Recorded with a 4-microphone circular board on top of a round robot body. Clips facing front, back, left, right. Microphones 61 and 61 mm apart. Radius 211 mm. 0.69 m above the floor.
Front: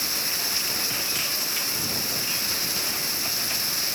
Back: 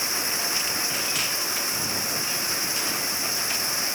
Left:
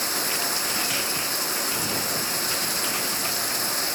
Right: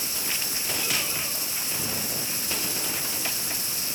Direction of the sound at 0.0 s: 115° left.